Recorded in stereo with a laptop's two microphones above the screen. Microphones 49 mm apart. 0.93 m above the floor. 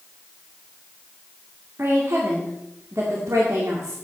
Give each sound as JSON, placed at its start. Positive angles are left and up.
{"t": 1.8, "sound": "a woman speaking", "side_deg": -55, "distance_m": 2.0}